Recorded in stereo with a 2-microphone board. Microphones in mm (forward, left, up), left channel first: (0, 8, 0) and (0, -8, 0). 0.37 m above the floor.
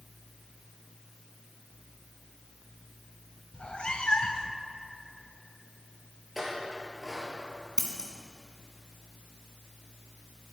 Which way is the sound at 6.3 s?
15° right (ahead or behind).